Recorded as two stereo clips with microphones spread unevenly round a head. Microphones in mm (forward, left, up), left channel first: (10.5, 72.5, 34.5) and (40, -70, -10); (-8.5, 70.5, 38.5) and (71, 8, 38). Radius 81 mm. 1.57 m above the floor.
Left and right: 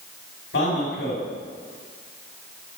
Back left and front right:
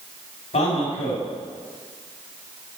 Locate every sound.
0.5 s a man speaking: 130° left, 5 m